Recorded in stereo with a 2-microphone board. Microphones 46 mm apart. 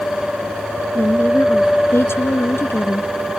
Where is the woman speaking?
60° left (ahead or behind); by 3.1 s 70° left (ahead or behind).